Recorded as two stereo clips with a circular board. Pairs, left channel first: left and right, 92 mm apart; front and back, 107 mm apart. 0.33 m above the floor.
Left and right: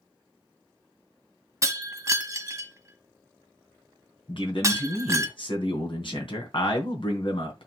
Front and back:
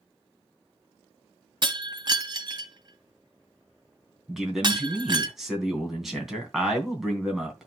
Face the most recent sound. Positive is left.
turn(degrees=95)